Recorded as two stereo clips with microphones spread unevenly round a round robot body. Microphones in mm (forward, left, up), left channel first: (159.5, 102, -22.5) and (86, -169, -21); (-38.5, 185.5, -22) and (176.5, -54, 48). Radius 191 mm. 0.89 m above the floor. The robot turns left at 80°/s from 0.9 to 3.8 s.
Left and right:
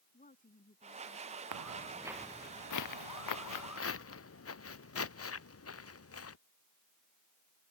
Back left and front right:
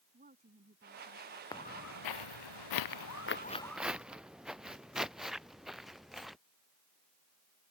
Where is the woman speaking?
15° left; by 1.4 s 25° right.